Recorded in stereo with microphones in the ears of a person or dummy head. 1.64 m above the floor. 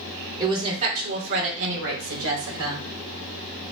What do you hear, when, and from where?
0.4 s a woman speaking: 25° right (ahead or behind), 1.5 m; by 2.8 s 80° right, 2.5 m